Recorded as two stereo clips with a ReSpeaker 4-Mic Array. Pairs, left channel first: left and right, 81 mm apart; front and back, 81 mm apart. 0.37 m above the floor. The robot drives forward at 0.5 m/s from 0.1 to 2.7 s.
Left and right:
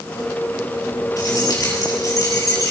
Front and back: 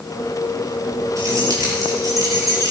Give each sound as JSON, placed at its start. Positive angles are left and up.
{"t": 1.2, "sound": "keys jangling", "azimuth_deg": 130, "distance_m": 4.5}